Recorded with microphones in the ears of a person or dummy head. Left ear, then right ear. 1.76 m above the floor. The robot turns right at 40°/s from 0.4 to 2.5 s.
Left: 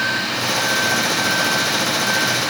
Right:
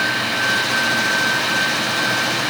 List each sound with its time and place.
Only background noise.